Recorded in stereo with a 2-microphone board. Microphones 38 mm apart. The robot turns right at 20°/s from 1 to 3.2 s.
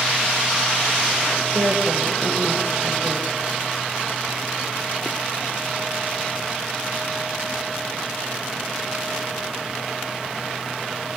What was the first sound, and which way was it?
A woman speaking, 95° right.